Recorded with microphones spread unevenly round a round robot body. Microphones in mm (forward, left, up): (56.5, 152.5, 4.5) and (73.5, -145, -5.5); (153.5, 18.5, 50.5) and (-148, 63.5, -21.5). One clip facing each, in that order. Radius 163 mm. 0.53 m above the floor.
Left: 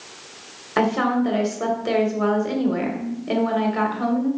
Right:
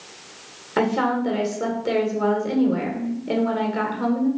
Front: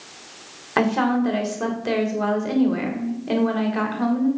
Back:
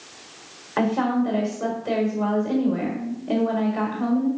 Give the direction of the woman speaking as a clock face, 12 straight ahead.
12 o'clock.